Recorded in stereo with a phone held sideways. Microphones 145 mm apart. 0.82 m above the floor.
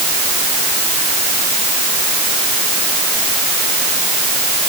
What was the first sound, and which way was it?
Only background noise.